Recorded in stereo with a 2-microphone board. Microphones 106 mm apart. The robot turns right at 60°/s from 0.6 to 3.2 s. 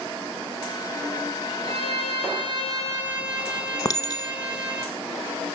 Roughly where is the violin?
Right.